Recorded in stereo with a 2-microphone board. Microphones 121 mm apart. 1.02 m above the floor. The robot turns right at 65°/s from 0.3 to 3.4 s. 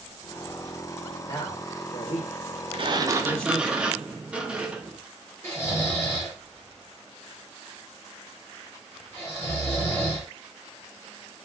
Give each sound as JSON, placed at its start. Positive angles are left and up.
{"t": 1.3, "sound": "a man speaking", "side_deg": 30, "distance_m": 1.1}
{"t": 2.7, "sound": "a sliding door", "azimuth_deg": -55, "distance_m": 0.6}
{"t": 5.4, "sound": "snoring", "side_deg": 20, "distance_m": 1.4}